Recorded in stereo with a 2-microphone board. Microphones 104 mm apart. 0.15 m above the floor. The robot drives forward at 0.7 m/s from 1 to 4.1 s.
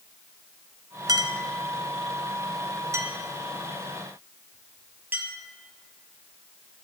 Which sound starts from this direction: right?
A clink, at 1.1 s.